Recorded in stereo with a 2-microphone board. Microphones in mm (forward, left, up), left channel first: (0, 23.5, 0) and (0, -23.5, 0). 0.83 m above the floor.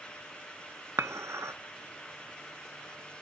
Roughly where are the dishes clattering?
Right.